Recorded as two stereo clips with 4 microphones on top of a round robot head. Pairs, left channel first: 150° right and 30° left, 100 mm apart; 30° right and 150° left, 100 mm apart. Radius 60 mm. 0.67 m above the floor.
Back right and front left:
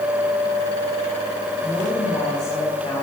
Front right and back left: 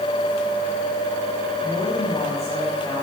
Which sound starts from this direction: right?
A woman speaking, at 1.6 s.